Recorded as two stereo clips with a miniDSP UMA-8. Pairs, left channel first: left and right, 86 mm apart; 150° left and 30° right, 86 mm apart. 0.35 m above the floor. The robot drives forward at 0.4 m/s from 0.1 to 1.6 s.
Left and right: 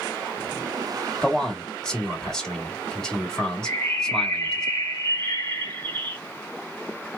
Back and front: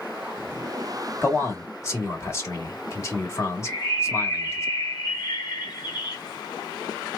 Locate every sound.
1.2 s a man speaking: 165° left, 1.4 m; by 4.7 s 170° left, 1.4 m
3.6 s a bird: 155° left, 1.3 m